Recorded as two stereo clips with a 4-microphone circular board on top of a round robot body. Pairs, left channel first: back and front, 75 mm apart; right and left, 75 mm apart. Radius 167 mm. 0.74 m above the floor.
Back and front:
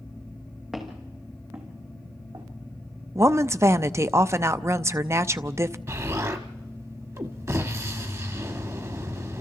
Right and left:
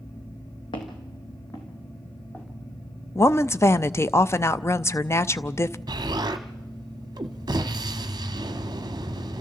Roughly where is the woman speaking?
Ahead right.